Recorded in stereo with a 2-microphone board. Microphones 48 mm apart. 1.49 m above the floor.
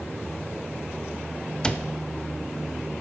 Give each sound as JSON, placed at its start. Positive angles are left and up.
{"t": 1.6, "sound": "a cupboard door", "side_deg": 20, "distance_m": 0.6}